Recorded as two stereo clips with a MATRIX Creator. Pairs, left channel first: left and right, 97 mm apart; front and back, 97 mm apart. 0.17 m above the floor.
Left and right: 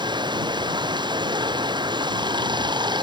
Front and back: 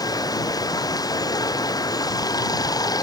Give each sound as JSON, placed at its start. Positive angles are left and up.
{"t": 0.0, "sound": "running water", "azimuth_deg": -50}